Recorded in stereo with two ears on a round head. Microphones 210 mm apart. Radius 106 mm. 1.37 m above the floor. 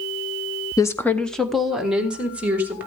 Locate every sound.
0.8 s a woman speaking: 15° left (ahead or behind), 0.8 m; by 2.9 s 10° right (ahead or behind), 2.5 m